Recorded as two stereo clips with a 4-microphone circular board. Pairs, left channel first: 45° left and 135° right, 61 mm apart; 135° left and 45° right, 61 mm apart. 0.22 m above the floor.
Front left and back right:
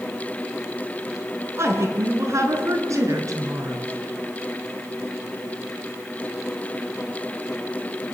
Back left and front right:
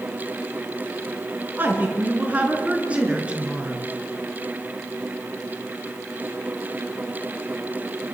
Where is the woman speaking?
100° right, 3.5 m; by 3.9 s 120° right, 4 m.